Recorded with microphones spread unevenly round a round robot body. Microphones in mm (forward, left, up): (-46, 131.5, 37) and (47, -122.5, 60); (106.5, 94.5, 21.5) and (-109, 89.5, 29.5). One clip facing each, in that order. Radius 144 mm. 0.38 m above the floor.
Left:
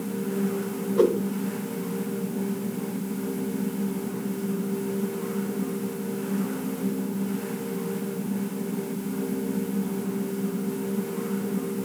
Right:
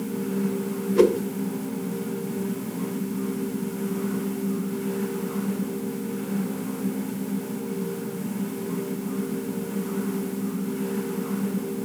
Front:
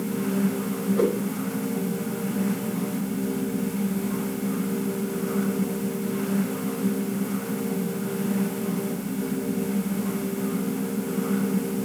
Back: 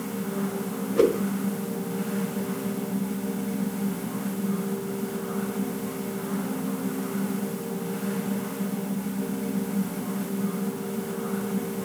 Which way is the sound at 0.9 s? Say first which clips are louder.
Right 2 dB, back 3 dB; 115° right.